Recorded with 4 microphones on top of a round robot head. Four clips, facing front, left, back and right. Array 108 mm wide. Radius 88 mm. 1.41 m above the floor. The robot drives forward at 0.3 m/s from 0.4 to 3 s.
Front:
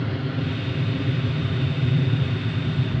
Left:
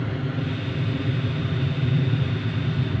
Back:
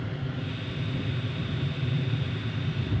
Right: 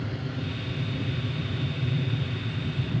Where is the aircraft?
40° left; by 3.0 s 50° left.